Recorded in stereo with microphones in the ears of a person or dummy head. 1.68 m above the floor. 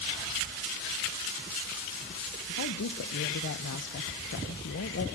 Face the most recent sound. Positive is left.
turn(degrees=60)  # may be behind; listen again after turning